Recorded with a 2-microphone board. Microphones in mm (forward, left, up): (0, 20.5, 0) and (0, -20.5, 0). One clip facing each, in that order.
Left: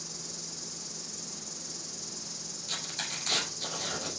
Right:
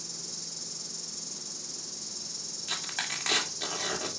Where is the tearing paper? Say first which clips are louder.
Right 3 dB; 60° right (ahead or behind), 3 m.